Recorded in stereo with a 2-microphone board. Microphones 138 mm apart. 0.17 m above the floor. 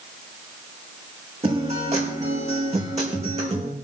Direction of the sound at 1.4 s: 50° right (ahead or behind).